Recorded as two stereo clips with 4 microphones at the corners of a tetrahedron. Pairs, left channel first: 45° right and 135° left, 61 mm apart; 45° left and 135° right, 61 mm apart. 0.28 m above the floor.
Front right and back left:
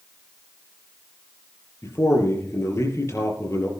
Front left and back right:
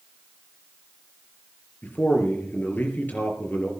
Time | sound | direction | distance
1.8 | a man speaking | 15° right | 5 m